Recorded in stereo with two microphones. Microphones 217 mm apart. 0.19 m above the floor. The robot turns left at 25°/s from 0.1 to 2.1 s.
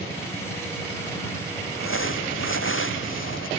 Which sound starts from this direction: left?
Crumpling, at 1.7 s.